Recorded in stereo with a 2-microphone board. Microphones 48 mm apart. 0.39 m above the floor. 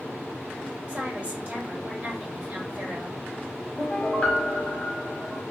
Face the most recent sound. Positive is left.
turn(degrees=20)  # may be behind; listen again after turning